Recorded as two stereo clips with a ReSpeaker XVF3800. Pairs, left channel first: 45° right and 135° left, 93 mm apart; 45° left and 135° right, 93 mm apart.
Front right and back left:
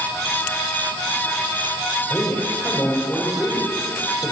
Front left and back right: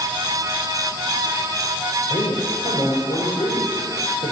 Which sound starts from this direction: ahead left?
A man speaking, at 2.1 s.